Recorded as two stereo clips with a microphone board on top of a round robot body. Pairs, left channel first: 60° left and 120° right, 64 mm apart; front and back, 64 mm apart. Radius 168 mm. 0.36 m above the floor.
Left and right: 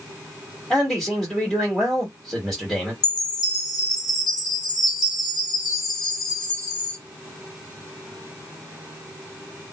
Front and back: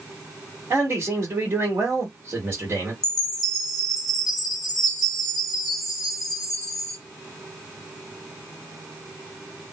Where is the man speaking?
145° left, 1.8 m.